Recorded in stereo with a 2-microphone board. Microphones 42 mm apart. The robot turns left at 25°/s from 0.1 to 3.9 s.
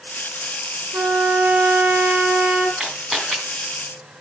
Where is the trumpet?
105° right, 5.5 m; by 2.7 s 145° right, 5.5 m.